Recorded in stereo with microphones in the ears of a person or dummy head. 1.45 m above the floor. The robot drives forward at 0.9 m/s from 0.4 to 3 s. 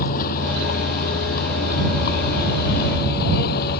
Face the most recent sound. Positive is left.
turn(degrees=70)  # may be behind; listen again after turning